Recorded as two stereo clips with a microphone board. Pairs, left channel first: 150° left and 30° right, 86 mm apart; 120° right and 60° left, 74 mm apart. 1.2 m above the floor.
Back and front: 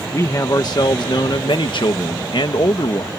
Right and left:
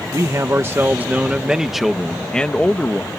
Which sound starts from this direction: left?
A man speaking, at 0.1 s.